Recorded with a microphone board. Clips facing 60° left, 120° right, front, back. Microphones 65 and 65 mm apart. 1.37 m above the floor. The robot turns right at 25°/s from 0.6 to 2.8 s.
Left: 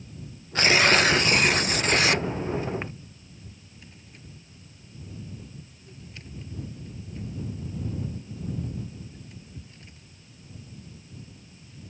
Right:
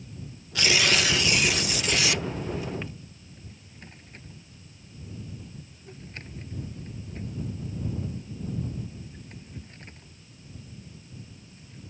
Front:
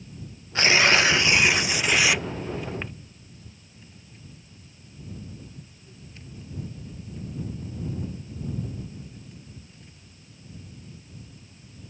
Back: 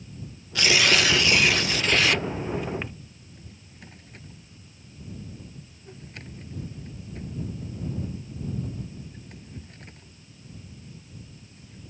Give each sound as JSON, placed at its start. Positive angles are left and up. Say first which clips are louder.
{"t": 0.6, "sound": "tearing paper", "louder": "left 4 dB, front 2 dB", "azimuth_deg": 35}
{"t": 3.2, "sound": "a drawer", "louder": "even, back 1 dB", "azimuth_deg": -160}